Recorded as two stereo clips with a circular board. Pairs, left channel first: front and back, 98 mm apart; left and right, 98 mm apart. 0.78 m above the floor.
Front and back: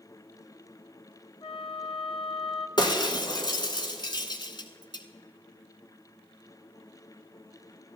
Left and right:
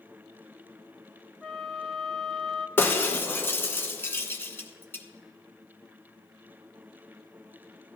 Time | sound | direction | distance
1.4 | a flute | straight ahead | 0.7 m
2.8 | breaking glass | 25° left | 1.1 m